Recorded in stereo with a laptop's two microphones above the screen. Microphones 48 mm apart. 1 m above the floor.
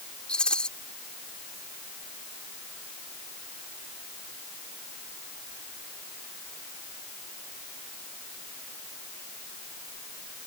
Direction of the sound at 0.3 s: 20° left (ahead or behind).